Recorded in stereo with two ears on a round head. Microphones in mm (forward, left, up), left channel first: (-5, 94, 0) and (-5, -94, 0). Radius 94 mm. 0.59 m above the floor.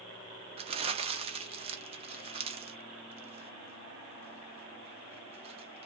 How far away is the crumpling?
About 0.7 m.